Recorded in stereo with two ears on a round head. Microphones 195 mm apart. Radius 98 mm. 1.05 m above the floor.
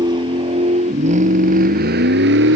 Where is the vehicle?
20° right (ahead or behind); by 2.6 s 55° right (ahead or behind).